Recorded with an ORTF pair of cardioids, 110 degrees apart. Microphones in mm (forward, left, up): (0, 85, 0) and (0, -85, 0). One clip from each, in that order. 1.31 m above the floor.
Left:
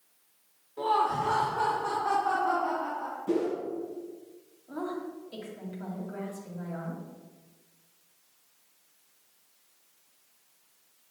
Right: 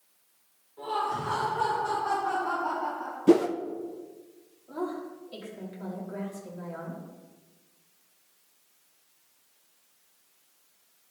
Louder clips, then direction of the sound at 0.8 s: Left 4 dB; 60° left.